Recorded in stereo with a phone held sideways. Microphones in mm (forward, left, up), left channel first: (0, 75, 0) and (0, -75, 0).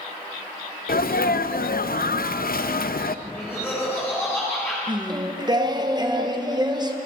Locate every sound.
0.9 s a sneeze: 70° left (ahead or behind), 0.6 m
3.2 s laughter: 15° left (ahead or behind), 4 m
4.9 s singing: 25° right (ahead or behind), 1.0 m